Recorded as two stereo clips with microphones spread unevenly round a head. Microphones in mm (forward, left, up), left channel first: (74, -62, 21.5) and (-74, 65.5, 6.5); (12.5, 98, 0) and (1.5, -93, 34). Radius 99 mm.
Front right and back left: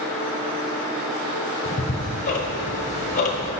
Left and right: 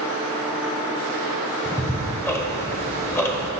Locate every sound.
1.6 s ticking: 15° left, 0.9 m